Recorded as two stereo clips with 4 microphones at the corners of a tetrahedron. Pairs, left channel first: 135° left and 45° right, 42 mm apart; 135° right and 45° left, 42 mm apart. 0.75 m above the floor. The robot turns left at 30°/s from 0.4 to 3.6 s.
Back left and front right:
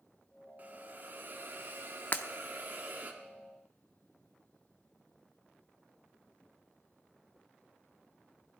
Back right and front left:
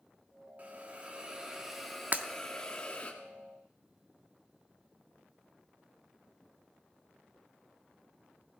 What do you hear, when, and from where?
0.6 s a hiss: 5° right, 1.4 m; by 3.1 s 80° right, 1.4 m
2.1 s breaking glass: 95° left, 0.7 m; by 2.3 s 90° left, 0.7 m